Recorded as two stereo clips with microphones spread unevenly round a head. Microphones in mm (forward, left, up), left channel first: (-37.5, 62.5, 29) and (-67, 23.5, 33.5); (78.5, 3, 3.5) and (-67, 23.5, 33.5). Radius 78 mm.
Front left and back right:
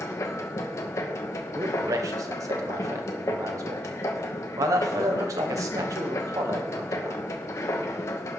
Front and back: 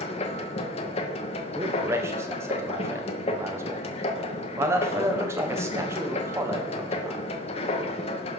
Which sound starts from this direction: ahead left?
A machine running, at 0.0 s.